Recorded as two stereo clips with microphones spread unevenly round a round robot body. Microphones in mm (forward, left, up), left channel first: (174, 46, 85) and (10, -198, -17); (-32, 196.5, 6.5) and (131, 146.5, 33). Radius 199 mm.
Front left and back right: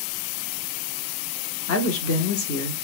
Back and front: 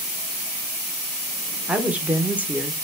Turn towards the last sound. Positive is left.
turn(degrees=75)